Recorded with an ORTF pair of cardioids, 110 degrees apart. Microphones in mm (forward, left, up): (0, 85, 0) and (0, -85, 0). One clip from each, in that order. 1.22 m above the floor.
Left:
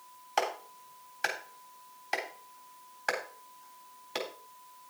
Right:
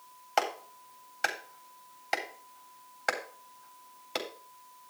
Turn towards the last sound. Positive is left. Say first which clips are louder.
# right 1 dB
turn(degrees=-25)